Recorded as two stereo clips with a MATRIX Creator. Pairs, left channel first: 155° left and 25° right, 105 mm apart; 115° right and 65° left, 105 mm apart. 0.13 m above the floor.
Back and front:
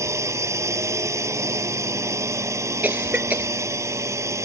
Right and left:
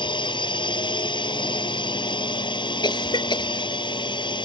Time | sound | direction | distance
0.0 | a drone | 80° right | ?
2.8 | a cough | 95° right | ?